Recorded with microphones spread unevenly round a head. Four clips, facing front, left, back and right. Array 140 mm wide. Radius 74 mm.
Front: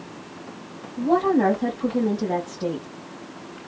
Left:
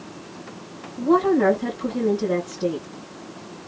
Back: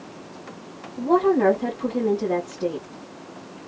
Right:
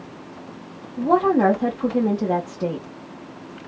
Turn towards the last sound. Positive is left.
turn(degrees=-85)